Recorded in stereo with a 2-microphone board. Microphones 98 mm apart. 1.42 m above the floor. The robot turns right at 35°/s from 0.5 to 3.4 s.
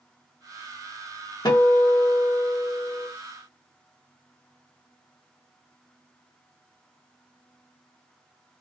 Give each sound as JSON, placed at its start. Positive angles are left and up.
{"t": 1.4, "sound": "a guitar", "azimuth_deg": 60, "distance_m": 0.8}